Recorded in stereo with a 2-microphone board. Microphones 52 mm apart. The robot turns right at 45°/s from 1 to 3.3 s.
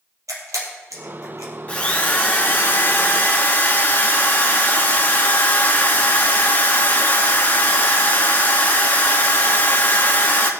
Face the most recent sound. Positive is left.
turn(degrees=110)